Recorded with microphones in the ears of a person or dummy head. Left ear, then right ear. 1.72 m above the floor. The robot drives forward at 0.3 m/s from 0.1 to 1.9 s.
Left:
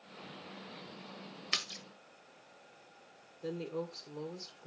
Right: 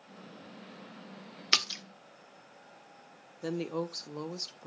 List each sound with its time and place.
1.5 s a splash: 25° right (ahead or behind), 0.9 m
3.4 s a woman speaking: 65° right (ahead or behind), 1.0 m